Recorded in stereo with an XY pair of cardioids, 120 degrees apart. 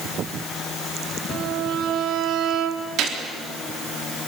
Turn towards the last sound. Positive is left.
turn(degrees=-70)